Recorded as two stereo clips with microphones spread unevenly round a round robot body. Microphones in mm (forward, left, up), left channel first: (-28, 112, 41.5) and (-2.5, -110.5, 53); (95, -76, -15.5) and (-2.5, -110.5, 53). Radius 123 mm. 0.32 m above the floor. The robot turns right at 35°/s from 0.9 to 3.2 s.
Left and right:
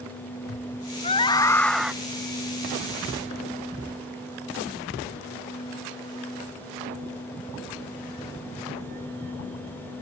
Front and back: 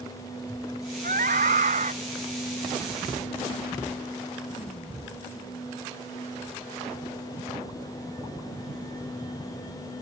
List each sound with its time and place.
1.0 s a scream: 160° left; by 1.9 s 170° right